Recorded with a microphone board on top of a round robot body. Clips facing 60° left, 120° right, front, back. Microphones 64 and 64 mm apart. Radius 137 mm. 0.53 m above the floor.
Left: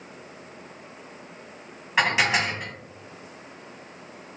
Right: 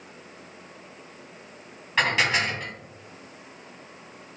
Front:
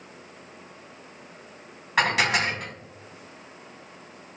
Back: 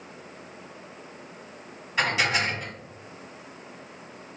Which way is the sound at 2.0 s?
15° right.